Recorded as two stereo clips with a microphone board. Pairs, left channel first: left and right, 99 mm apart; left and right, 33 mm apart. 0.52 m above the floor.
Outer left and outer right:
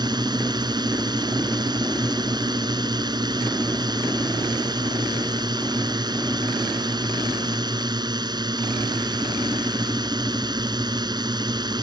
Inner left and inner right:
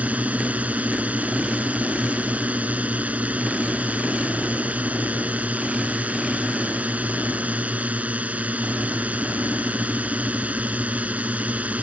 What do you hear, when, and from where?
0.0 s a drone: 45° right (ahead or behind)